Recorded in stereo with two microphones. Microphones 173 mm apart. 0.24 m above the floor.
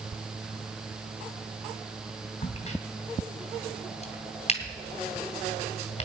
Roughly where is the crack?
Left.